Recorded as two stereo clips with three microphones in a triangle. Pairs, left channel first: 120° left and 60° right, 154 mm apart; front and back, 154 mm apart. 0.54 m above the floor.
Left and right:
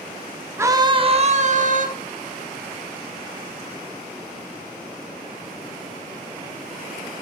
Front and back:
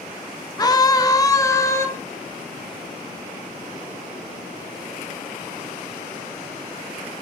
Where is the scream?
15° right, 0.7 m; by 1.9 s 70° right, 1.1 m.